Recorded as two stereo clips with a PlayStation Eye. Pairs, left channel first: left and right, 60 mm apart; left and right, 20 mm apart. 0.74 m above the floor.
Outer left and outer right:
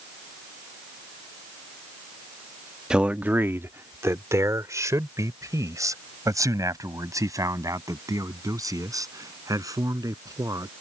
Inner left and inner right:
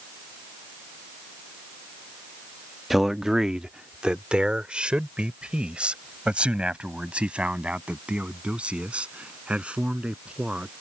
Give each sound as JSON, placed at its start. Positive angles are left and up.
{"t": 2.9, "sound": "a man speaking", "side_deg": -15}